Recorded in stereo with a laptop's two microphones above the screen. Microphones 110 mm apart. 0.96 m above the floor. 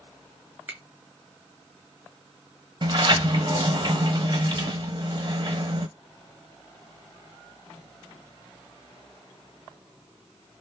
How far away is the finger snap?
About 1.3 m.